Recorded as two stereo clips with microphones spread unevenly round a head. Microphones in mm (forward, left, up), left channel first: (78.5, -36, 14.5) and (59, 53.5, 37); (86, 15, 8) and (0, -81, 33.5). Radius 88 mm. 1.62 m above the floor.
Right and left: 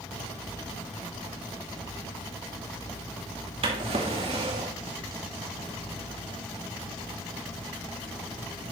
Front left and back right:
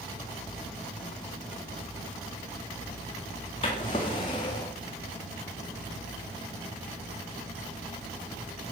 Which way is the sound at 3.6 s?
115° left.